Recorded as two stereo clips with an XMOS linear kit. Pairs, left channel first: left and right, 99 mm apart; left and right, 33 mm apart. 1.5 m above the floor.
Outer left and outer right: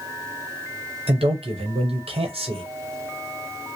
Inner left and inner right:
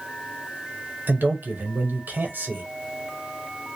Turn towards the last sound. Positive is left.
turn(degrees=-80)